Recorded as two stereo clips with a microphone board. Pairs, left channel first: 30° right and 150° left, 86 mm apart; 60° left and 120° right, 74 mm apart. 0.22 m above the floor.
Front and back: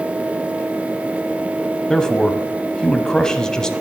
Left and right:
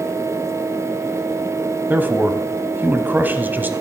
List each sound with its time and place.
1.9 s a man speaking: 100° right, 1.1 m